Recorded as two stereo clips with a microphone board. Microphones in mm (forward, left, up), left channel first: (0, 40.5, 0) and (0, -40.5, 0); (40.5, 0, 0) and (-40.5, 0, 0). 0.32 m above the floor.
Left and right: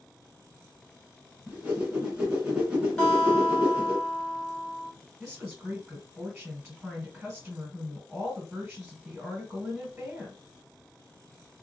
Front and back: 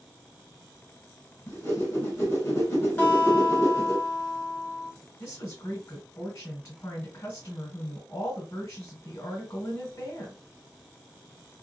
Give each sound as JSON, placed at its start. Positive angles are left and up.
{"t": 1.5, "sound": "a whoosh", "azimuth_deg": -20, "distance_m": 1.8}
{"t": 3.0, "sound": "a guitar", "azimuth_deg": 50, "distance_m": 1.5}
{"t": 5.2, "sound": "a woman speaking", "azimuth_deg": -30, "distance_m": 1.6}